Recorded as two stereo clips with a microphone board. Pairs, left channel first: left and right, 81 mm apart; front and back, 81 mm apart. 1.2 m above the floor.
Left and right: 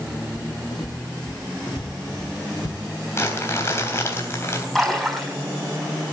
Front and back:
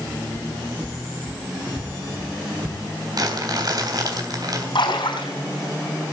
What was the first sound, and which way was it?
Footsteps, 115° left.